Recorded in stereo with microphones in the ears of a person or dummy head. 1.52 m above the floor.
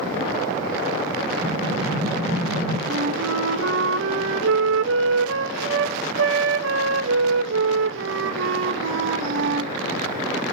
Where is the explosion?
45° right (ahead or behind), 3.5 m.